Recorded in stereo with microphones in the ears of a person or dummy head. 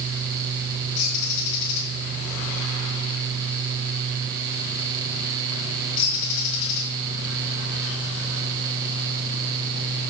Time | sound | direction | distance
1.0 | a bird | 50° left (ahead or behind) | 1.8 m